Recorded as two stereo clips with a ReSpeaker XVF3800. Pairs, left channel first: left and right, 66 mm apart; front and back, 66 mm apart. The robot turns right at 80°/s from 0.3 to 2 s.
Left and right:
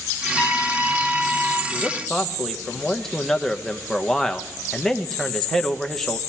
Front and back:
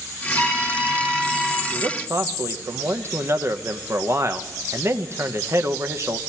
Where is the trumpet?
165° left, 8 m; by 1.6 s 95° right, 8 m.